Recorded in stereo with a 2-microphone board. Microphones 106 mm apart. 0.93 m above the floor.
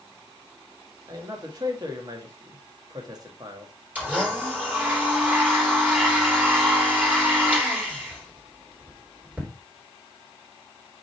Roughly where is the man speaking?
Right.